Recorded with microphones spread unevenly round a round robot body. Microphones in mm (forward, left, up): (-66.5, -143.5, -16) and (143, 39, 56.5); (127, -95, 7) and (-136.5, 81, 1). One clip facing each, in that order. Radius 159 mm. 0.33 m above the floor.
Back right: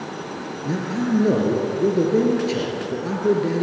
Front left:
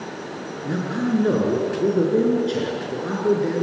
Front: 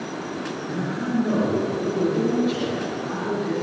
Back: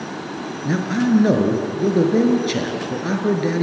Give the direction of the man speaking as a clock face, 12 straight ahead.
7 o'clock.